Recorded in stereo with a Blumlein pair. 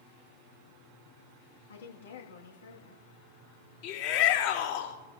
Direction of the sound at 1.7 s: 65° left.